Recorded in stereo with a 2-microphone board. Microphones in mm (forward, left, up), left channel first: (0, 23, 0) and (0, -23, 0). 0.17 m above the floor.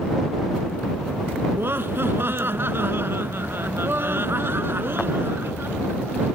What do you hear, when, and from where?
1.5 s laughter: 50° right (ahead or behind)